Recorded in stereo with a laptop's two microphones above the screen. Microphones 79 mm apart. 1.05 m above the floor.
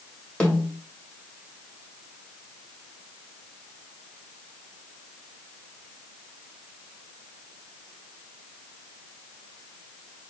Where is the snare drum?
15° left (ahead or behind), 1.3 m.